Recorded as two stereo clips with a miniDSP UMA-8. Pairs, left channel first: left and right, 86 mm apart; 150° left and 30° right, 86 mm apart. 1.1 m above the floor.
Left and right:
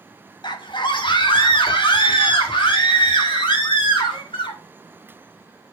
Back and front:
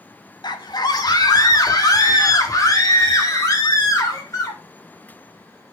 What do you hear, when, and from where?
0.4 s a scream: 115° left, 1.2 m; by 4.6 s 100° left, 3.5 m